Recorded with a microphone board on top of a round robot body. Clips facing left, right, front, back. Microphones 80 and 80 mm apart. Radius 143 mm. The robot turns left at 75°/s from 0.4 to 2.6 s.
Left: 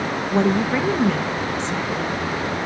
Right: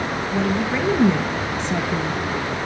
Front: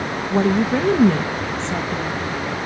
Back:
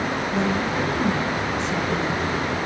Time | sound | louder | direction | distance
0.3 | a woman speaking | left 4 dB, front 9 dB | 35° left | 1.2 m